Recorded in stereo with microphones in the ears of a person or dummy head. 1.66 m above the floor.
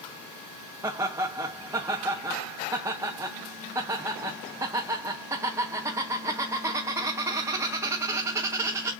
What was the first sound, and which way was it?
Laughter, 15° right (ahead or behind).